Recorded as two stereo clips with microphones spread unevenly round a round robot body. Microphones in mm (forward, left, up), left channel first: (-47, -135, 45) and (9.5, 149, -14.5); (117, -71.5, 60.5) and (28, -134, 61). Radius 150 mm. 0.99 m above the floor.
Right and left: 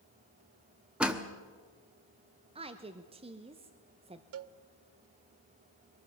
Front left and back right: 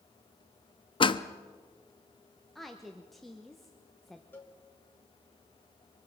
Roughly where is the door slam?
Ahead.